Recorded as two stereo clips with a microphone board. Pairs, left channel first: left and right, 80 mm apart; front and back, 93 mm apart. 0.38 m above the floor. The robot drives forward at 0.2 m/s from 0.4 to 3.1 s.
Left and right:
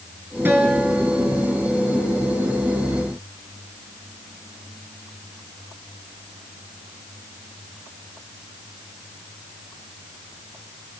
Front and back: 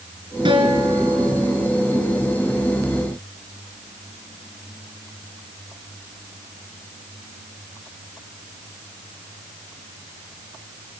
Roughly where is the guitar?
Behind right.